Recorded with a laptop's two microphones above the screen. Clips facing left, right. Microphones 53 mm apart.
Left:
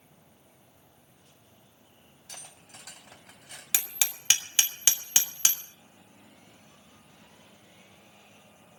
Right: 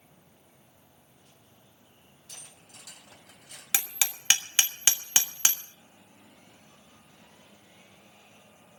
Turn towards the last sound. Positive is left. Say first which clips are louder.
# right 2 dB
turn(degrees=-25)  # may be behind; listen again after turning